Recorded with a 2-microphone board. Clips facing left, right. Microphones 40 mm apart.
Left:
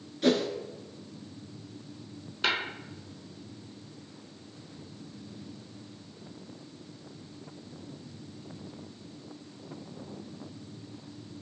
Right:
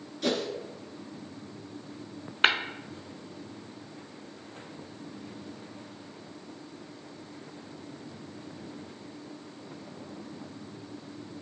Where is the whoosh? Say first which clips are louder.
Left 4 dB; 15° left (ahead or behind), 1.2 m.